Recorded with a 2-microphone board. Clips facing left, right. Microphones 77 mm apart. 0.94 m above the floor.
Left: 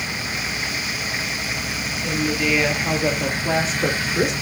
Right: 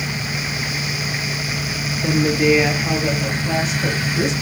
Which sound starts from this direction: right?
A woman speaking, at 2.0 s.